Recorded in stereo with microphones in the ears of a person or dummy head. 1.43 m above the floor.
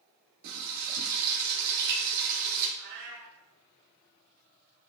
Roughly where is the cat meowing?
Right.